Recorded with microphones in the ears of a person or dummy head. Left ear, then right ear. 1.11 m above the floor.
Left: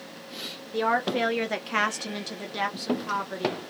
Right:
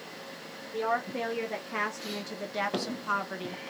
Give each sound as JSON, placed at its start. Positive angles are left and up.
{"t": 0.7, "sound": "a woman speaking", "side_deg": 45, "distance_m": 1.0}